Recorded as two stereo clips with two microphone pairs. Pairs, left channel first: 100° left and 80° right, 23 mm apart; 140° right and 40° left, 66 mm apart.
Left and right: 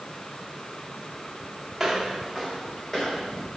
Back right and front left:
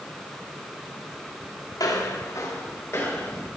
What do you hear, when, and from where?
1.8 s footsteps: 165° right, 3 m; by 3.5 s 155° left, 4 m